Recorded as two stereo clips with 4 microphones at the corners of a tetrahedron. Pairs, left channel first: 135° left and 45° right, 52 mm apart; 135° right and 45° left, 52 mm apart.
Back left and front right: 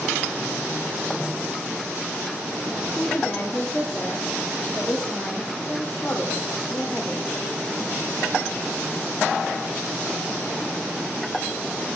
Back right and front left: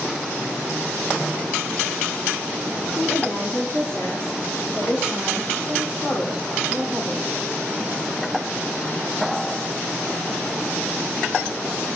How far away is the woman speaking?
About 1.7 m.